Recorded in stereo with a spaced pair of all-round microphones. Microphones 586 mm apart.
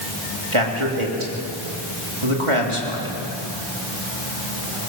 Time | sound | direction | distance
0.5 | a man speaking | 55° right (ahead or behind) | 3 m